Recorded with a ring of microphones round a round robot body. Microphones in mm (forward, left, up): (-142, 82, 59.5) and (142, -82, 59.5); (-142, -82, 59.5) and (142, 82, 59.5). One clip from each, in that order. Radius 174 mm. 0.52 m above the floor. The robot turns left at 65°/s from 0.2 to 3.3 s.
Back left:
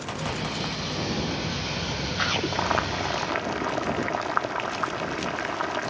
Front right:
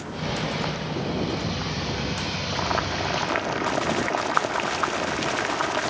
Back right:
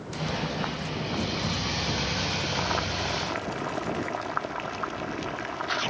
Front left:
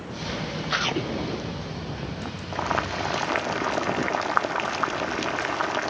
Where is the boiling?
100° left; by 5.9 s 50° left.